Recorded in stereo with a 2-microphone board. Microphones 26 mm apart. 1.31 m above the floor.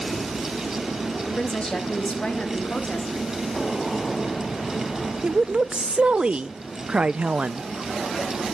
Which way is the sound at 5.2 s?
45° right (ahead or behind).